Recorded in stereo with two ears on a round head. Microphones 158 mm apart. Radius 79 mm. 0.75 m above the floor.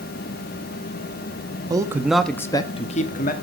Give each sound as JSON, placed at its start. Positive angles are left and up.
{"t": 1.7, "sound": "a man speaking", "side_deg": -20, "distance_m": 1.1}